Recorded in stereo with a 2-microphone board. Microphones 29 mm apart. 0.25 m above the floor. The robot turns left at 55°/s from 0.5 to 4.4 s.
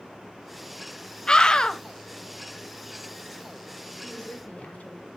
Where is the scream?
25° left (ahead or behind), 1.0 m; by 1.8 s 20° left (ahead or behind), 1.0 m.